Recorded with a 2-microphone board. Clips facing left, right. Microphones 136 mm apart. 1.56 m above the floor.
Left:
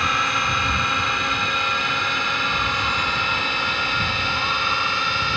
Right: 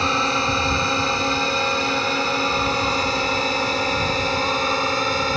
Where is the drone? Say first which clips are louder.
Right 3 dB; 30° right (ahead or behind); by 5.4 s 40° right (ahead or behind).